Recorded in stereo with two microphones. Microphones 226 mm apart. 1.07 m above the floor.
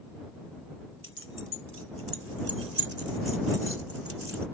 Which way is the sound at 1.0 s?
65° right (ahead or behind).